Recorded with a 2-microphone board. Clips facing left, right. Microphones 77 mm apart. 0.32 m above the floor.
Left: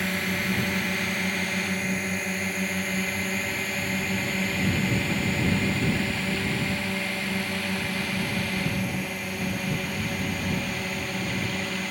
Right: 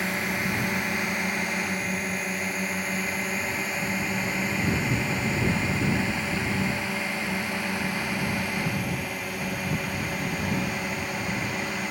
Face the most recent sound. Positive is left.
turn(degrees=0)  # may be behind; listen again after turning